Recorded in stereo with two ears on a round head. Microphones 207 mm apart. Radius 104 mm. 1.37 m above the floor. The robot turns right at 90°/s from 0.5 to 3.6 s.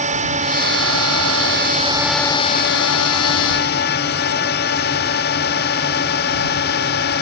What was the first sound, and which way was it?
A drone, 145° right.